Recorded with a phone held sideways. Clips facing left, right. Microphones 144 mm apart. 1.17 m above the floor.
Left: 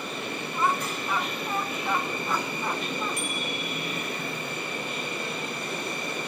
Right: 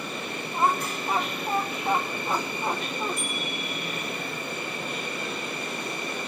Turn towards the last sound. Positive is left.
turn(degrees=85)